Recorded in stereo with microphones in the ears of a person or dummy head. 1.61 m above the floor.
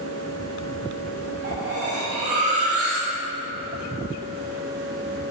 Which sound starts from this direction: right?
Cutlery clinking, at 1.4 s.